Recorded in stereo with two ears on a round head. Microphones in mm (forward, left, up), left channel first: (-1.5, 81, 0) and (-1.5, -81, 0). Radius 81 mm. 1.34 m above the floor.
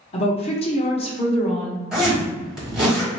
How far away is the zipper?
About 1.4 m.